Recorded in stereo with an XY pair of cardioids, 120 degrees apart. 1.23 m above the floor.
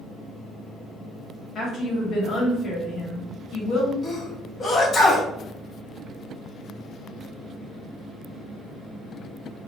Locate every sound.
1.6 s a woman speaking: 45° left, 1.3 m
4.0 s a sneeze: 35° left, 0.9 m